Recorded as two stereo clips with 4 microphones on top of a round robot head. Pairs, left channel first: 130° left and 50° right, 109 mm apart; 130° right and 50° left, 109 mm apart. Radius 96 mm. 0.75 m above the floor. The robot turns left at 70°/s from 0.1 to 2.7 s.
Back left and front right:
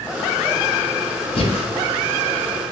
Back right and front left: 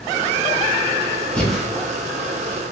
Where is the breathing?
150° left, 0.8 m; by 1.7 s 130° left, 0.8 m.